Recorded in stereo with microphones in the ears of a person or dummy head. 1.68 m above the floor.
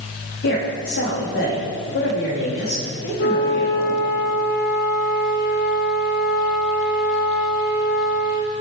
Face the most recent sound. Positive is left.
turn(degrees=45)  # may be behind; listen again after turning